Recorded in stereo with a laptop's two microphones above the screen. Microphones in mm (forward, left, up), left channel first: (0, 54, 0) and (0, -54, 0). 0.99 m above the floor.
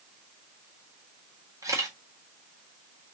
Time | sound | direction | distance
1.6 | a camera shutter | 30° right (ahead or behind) | 1.4 m